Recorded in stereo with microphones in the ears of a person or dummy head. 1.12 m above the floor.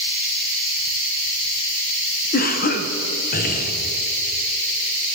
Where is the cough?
45° left (ahead or behind), 0.7 m.